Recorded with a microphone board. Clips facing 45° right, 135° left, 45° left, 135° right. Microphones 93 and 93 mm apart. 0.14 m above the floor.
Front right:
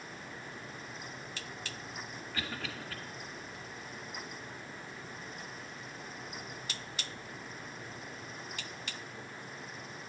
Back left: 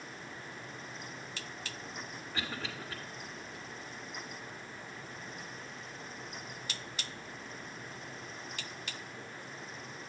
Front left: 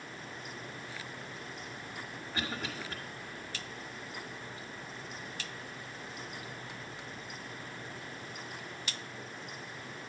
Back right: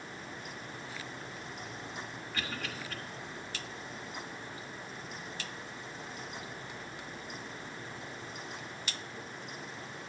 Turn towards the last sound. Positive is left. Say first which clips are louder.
# back left 1 dB, front left 2 dB
turn(degrees=95)